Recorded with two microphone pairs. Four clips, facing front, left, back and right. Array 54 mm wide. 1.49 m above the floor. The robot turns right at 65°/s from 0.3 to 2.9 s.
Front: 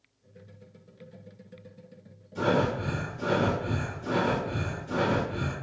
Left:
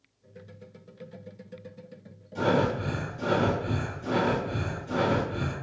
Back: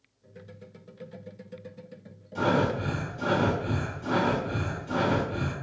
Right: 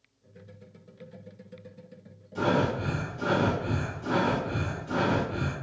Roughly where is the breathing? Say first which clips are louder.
Left 1 dB, back 1 dB; behind.